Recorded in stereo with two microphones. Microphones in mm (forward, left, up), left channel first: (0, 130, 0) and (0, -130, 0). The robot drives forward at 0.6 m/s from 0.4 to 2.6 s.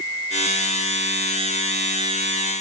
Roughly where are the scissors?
I don't hear scissors.